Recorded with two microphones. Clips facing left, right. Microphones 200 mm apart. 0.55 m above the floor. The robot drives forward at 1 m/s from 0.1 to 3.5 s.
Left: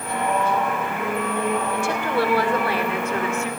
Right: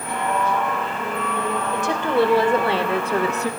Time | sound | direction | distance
1.7 | a woman speaking | 20° right (ahead or behind) | 2 m